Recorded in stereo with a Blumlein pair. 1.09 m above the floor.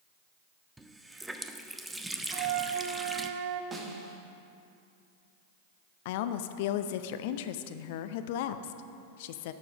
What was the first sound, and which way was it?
A running tap, 5° right.